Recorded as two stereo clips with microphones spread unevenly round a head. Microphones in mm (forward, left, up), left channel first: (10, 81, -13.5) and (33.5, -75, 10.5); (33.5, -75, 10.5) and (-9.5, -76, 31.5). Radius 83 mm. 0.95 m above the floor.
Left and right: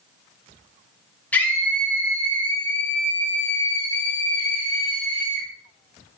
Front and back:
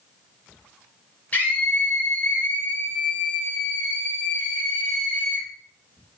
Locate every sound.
1.3 s a scream: 25° left, 1.3 m